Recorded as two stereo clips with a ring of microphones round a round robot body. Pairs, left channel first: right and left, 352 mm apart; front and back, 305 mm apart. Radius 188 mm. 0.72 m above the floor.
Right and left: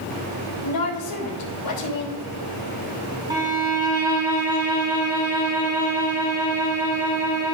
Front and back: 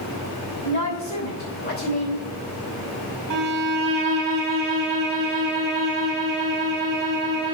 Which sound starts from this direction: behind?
A violin, at 3.3 s.